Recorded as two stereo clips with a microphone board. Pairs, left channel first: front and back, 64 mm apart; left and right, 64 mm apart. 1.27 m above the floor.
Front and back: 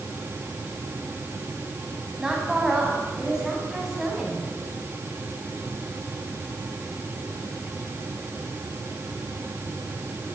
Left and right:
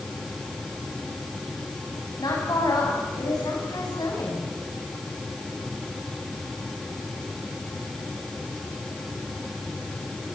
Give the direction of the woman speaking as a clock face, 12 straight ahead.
9 o'clock.